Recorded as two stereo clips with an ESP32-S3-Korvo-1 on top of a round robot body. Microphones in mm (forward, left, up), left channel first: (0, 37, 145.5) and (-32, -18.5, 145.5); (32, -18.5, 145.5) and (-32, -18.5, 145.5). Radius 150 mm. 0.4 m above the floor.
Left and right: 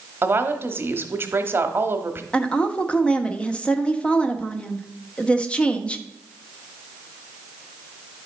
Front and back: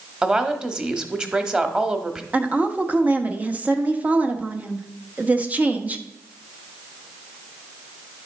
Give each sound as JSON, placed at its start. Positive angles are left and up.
{"t": 0.2, "sound": "a woman speaking", "azimuth_deg": -115, "distance_m": 1.2}
{"t": 2.3, "sound": "a woman speaking", "azimuth_deg": 125, "distance_m": 1.1}